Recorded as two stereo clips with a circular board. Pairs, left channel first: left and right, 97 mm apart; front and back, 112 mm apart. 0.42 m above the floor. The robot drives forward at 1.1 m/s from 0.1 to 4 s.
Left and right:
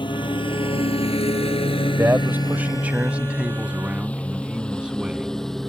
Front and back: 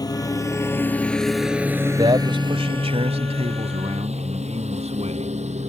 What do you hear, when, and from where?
0.0 s a lawn mower: 55° left; by 5.7 s 175° left
2.0 s a man speaking: 150° right; by 5.4 s 170° right